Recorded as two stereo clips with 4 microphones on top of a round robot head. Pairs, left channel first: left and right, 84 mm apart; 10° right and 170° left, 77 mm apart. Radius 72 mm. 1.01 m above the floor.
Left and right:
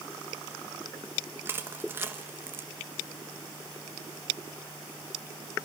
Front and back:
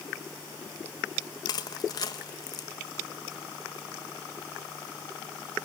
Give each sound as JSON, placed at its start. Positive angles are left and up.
{"t": 1.4, "sound": "crushing", "azimuth_deg": -30, "distance_m": 1.4}